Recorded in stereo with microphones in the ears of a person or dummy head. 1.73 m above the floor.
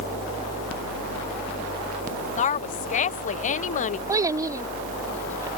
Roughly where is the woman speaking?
Left.